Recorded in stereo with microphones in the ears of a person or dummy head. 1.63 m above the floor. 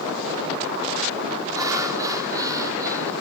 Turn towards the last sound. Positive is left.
turn(degrees=-20)  # may be behind; listen again after turning